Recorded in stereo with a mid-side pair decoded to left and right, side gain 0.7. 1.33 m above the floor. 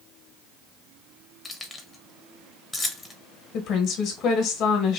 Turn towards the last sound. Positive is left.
turn(degrees=55)